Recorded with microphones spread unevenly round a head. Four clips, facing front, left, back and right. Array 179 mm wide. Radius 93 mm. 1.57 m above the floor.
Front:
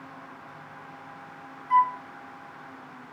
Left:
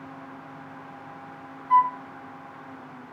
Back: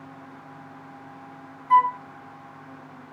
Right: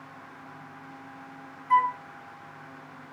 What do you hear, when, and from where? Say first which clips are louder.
1.7 s a flute: left 3 dB, back 3 dB; 145° right, 0.8 m